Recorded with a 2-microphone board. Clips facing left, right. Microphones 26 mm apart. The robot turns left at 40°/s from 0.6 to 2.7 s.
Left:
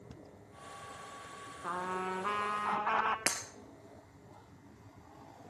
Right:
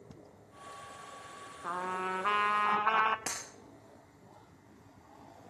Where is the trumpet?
5° right, 0.6 m; by 3.2 s 45° right, 0.6 m.